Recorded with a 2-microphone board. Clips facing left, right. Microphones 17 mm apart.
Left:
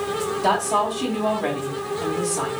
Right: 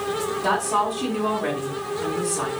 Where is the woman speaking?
50° left (ahead or behind), 2.5 m.